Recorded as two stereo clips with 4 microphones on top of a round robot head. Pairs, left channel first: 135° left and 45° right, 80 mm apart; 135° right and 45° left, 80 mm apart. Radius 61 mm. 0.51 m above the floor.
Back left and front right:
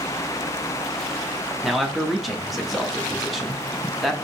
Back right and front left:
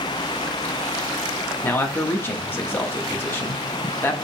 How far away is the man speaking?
About 0.7 m.